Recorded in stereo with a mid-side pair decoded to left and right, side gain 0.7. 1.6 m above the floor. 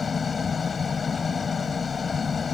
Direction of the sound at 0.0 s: 20° left.